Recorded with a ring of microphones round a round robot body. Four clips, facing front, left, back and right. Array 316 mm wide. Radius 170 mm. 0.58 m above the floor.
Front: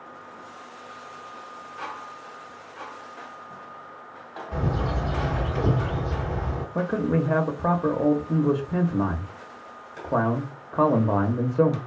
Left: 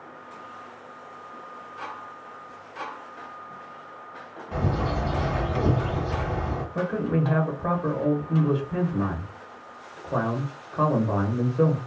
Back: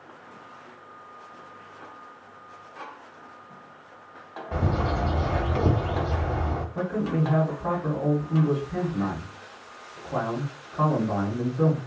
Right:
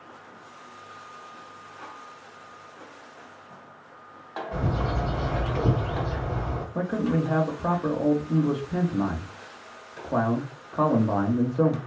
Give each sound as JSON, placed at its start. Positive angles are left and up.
{"t": 4.5, "sound": "a bird", "azimuth_deg": 170, "distance_m": 1.3}
{"t": 6.8, "sound": "a man speaking", "azimuth_deg": -15, "distance_m": 0.9}